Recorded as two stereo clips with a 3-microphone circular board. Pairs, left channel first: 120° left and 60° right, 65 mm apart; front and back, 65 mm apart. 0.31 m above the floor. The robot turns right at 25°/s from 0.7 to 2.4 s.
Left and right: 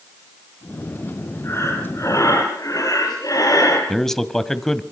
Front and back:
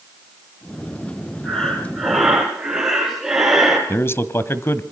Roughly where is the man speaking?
Ahead left.